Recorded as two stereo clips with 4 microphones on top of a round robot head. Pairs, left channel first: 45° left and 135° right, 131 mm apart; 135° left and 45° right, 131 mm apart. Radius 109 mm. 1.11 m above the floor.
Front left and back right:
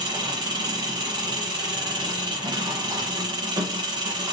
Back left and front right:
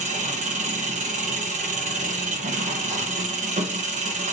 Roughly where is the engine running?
Right.